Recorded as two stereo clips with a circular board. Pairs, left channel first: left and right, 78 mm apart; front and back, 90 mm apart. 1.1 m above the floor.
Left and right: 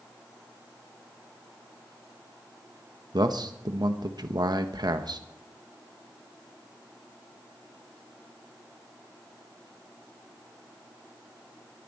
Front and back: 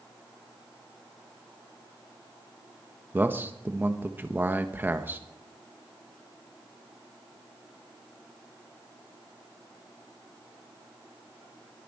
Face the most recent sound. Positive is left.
turn(degrees=-115)